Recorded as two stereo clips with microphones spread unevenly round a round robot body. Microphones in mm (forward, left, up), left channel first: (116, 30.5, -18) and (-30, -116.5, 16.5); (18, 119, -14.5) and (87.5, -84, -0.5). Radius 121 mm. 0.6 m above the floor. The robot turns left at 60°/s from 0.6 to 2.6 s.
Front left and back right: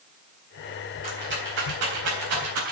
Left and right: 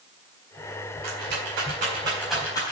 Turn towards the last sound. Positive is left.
turn(degrees=-175)